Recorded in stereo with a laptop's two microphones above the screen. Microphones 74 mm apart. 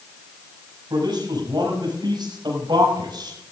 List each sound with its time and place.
0.9 s a man speaking: 85° right, 6.5 m; by 3.4 s 80° right, 5.5 m